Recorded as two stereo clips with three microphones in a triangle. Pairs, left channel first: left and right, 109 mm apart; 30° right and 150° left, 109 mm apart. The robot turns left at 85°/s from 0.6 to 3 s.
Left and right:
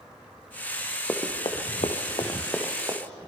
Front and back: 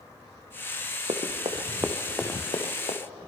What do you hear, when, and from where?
1.1 s running footsteps: 165° left, 3 m; by 3.0 s 40° right, 4 m